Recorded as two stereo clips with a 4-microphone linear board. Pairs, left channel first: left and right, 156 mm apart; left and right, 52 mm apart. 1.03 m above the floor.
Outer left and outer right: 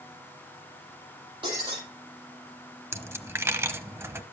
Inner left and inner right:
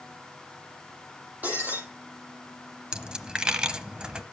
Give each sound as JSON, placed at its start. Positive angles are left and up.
{"t": 1.4, "sound": "breaking glass", "side_deg": -30, "distance_m": 9.0}
{"t": 2.9, "sound": "a dropped coin", "side_deg": -15, "distance_m": 0.9}